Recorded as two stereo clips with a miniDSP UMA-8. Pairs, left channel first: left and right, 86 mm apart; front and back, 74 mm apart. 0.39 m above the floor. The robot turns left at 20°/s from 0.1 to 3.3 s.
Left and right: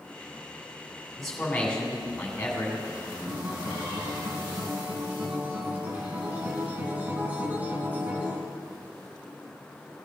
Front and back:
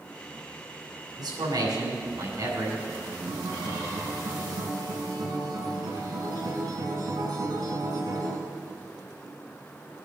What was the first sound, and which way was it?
A man speaking, 175° left.